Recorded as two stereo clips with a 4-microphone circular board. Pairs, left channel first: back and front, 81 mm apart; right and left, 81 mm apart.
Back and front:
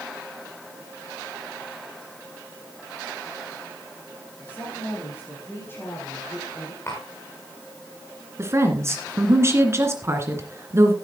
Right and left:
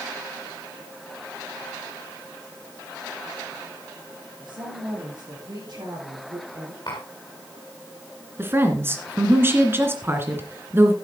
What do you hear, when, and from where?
4.4 s a woman speaking: 115° left, 8 m; by 6.8 s 125° left, 5.5 m
6.9 s tapping: 125° right, 4 m
8.4 s a woman speaking: 40° left, 2 m